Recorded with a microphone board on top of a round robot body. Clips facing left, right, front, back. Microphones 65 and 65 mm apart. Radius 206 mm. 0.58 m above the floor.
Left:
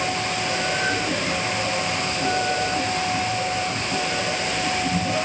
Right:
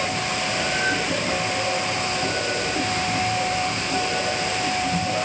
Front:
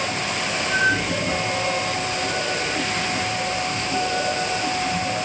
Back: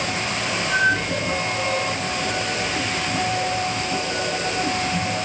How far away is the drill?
I don't hear a drill.